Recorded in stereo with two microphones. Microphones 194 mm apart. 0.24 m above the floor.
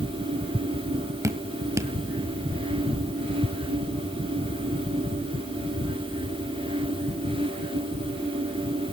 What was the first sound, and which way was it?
Dripping, 15° right (ahead or behind).